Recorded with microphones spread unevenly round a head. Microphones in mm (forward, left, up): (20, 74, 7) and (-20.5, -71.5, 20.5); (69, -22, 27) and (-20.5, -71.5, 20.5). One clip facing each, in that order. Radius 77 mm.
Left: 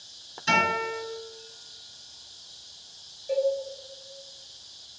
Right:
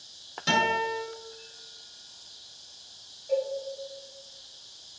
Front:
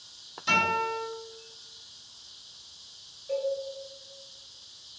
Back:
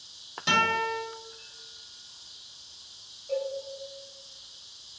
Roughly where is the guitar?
Behind right.